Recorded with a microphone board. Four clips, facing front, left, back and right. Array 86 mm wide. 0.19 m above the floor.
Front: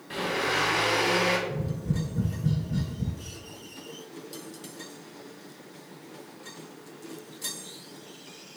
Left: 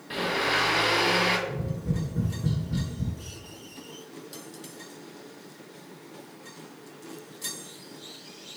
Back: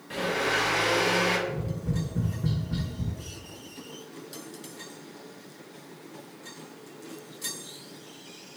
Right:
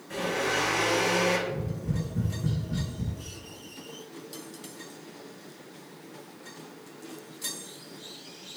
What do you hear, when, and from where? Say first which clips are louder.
0.1 s a blender: left 1 dB, back 1 dB; 80° left, 0.8 m
1.5 s tapping: left 1 dB, front 1 dB; 165° left, 1.1 m